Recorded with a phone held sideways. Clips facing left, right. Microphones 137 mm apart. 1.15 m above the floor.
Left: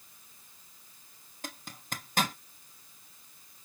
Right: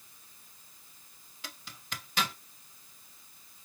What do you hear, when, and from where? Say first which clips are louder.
1.4 s a zipper: left 4 dB; 45° left (ahead or behind), 0.6 m